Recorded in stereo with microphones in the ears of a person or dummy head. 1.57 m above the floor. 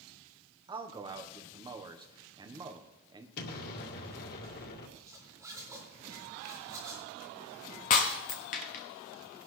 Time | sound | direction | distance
0.7 | a man speaking | 20° right (ahead or behind) | 1.1 m
3.4 | an explosion | 50° left (ahead or behind) | 2 m
5.0 | a zipper | 10° right (ahead or behind) | 4 m
7.9 | breaking glass | 35° left (ahead or behind) | 1.1 m